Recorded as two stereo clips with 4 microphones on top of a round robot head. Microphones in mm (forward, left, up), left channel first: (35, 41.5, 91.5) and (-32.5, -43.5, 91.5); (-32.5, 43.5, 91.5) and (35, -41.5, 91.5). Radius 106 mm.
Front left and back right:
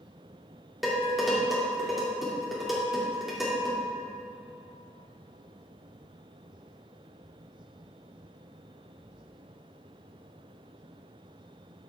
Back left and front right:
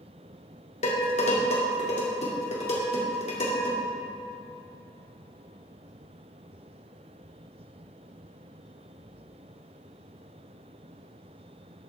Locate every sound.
0.8 s dishes clattering: 145° left, 2.5 m